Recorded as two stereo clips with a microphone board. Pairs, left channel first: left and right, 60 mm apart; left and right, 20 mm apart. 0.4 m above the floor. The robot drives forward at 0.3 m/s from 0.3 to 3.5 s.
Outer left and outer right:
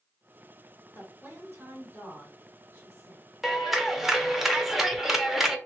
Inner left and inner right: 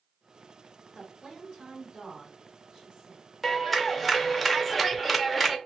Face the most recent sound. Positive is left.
turn(degrees=-5)  # may be behind; listen again after turning